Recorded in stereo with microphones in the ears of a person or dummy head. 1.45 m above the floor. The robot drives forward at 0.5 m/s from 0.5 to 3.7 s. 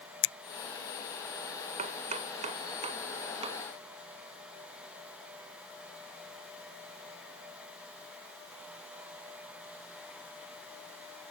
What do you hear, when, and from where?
0.2 s a finger snap: 80° left
1.8 s chopping: 35° right (ahead or behind); by 3.6 s 30° right (ahead or behind)